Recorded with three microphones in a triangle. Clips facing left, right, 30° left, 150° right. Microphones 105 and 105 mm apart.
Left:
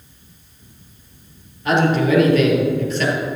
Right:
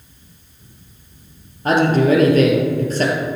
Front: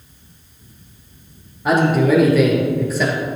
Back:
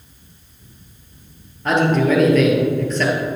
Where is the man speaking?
50° right, 2.5 m.